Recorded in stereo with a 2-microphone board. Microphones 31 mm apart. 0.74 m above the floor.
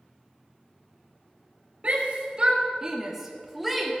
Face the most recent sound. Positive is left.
turn(degrees=5)  # may be behind; listen again after turning